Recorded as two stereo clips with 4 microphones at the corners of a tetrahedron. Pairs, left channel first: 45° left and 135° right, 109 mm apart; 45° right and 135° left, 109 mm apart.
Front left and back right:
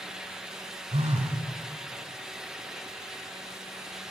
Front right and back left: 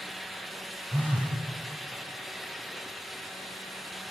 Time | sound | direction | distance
0.9 | a phone buzzing | 120° right | 3 m